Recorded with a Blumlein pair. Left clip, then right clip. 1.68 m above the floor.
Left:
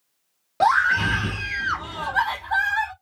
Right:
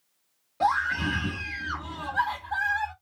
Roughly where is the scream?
Ahead left.